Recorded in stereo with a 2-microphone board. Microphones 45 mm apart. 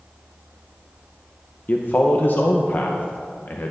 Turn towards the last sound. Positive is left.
turn(degrees=45)  # may be behind; listen again after turning